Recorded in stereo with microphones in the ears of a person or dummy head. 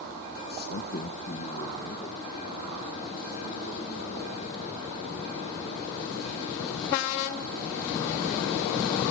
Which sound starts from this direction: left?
A man speaking, at 0.5 s.